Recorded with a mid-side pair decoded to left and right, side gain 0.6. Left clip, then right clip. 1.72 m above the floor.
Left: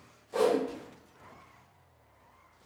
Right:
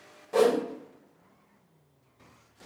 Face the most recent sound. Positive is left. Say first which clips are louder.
# right 4 dB
turn(degrees=-45)